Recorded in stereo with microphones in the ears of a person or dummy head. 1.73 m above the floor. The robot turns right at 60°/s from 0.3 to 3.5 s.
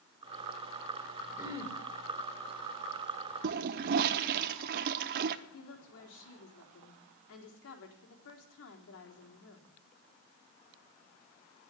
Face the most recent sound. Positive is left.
turn(degrees=75)  # may be behind; listen again after turning